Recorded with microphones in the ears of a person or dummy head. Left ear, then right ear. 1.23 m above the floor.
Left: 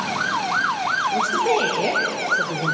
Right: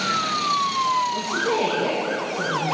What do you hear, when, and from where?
1.1 s a woman speaking: 45° left (ahead or behind), 1.7 m; by 2.8 s 60° left (ahead or behind), 1.1 m